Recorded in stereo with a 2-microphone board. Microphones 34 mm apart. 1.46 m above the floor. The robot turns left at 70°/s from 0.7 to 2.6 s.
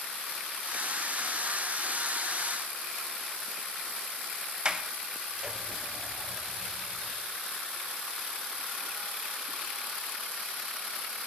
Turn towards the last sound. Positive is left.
turn(degrees=-20)  # may be behind; listen again after turning